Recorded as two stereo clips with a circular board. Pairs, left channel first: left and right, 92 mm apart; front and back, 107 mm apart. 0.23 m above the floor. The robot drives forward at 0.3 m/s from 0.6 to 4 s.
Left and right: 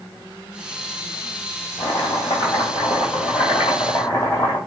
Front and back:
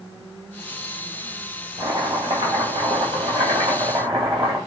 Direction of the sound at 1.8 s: 130° left.